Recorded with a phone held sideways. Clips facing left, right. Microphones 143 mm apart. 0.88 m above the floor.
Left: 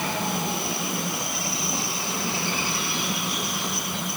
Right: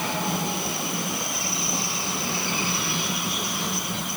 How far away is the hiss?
No hiss in this recording.